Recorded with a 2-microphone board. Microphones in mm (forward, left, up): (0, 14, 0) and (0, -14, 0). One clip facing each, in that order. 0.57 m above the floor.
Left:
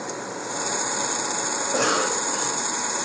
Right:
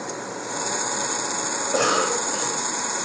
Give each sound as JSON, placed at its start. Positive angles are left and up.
{"t": 1.6, "sound": "a cough", "side_deg": -5, "distance_m": 1.2}